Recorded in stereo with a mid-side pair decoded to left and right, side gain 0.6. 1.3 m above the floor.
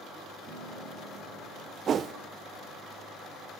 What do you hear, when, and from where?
0.5 s a piano: 70° right, 8 m
1.9 s a whoosh: 40° right, 0.7 m